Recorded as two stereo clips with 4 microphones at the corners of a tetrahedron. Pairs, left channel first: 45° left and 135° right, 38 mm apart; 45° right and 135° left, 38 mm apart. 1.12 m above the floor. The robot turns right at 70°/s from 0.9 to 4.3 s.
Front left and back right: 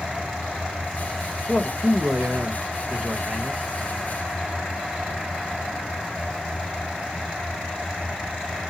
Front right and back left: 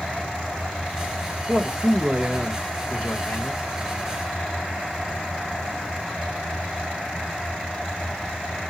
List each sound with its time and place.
1.5 s a man speaking: 150° left, 1.4 m; by 3.6 s 60° right, 1.4 m